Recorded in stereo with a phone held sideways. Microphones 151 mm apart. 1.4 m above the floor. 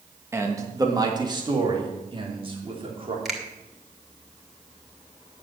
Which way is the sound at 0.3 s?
20° right (ahead or behind).